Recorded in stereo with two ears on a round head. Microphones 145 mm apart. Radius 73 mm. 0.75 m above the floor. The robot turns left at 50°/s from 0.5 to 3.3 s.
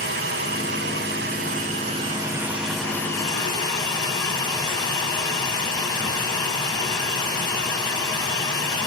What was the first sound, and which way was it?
Running water, 70° right.